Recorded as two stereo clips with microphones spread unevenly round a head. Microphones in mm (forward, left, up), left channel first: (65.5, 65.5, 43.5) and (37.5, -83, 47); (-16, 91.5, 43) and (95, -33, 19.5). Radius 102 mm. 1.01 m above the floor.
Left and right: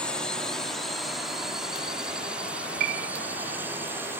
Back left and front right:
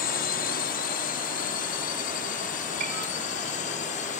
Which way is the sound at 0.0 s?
160° left.